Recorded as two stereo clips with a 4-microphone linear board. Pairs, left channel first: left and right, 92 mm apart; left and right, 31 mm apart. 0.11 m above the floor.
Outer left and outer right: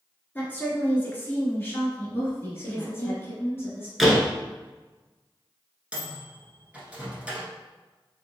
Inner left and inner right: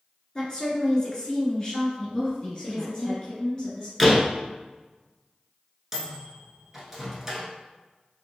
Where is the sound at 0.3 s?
20° left (ahead or behind), 1.2 m.